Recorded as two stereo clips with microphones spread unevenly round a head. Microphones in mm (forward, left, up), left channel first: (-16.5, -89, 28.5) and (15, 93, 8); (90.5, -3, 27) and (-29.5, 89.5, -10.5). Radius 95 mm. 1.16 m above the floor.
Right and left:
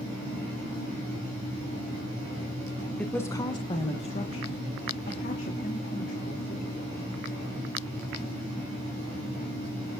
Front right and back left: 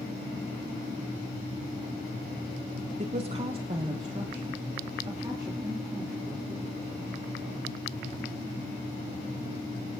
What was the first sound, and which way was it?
A woman speaking, 170° left.